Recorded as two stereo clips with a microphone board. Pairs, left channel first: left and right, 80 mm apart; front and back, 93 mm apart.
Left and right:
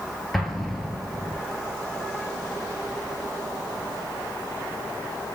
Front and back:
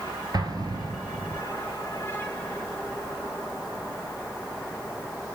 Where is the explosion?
Straight behind, 1.0 m.